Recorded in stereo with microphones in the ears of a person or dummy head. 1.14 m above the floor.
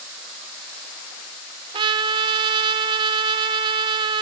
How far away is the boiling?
No boiling in this recording.